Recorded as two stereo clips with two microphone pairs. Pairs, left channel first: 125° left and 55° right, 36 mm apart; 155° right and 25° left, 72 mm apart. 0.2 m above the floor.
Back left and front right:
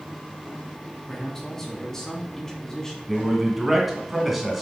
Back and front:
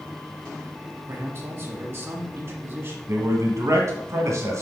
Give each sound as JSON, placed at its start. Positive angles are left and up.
{"t": 1.1, "sound": "a man speaking", "azimuth_deg": 50, "distance_m": 1.2}
{"t": 3.1, "sound": "a man speaking", "azimuth_deg": 25, "distance_m": 1.7}